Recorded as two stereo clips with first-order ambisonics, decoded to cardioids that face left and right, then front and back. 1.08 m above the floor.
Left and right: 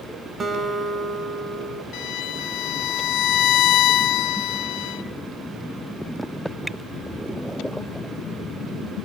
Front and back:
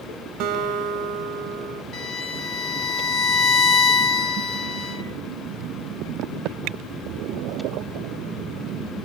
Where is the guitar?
155° right, 1.4 m.